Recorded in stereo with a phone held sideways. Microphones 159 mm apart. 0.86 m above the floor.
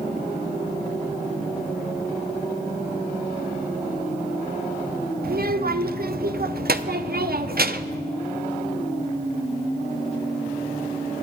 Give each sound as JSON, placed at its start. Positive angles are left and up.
{"t": 5.2, "sound": "a child speaking", "side_deg": -70, "distance_m": 0.6}